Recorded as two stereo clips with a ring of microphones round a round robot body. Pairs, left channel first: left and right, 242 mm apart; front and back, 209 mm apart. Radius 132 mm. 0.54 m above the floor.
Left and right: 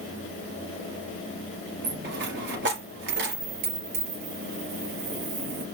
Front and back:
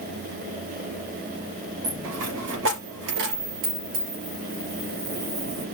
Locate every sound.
1.8 s a dropped coin: 140° right, 3.5 m